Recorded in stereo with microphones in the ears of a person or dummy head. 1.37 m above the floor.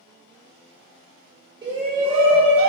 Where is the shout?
25° right (ahead or behind), 1.9 m; by 2.7 s 40° right (ahead or behind), 1.5 m.